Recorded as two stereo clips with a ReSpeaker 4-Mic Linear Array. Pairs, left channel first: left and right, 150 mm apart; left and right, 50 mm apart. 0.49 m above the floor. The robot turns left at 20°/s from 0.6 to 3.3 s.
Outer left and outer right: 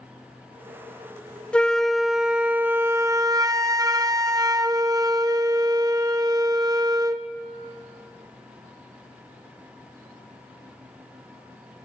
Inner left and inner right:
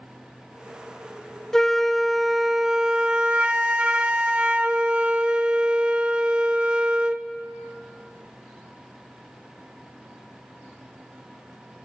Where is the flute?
10° left, 0.8 m; by 7.2 s 25° right, 0.8 m.